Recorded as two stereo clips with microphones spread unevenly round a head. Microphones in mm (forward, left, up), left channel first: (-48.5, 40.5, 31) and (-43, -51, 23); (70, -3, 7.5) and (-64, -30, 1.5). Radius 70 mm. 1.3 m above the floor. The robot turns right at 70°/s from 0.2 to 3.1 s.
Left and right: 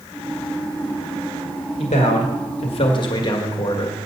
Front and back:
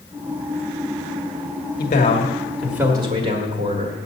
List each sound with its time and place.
1.8 s a man speaking: 45° left, 1.8 m; by 4.0 s 135° left, 1.8 m